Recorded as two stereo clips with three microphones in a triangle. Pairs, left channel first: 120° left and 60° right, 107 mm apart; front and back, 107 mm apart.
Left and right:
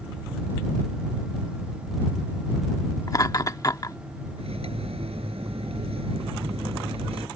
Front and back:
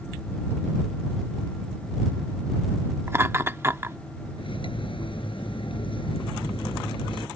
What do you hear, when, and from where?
3.1 s laughter: 135° left
4.4 s cutlery clinking: 35° right